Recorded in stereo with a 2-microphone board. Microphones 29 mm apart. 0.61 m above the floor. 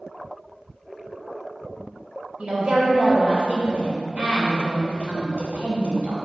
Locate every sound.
2.4 s a woman speaking: 40° right (ahead or behind), 2.5 m